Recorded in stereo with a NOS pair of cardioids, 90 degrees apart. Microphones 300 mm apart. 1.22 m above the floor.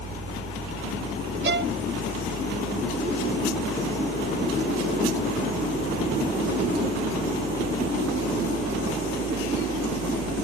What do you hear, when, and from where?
0.0 s a fan: 65° right
1.4 s a violin: 40° right